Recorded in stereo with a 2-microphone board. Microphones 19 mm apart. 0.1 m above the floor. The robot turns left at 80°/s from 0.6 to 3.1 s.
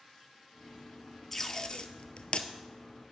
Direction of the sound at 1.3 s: 15° left (ahead or behind).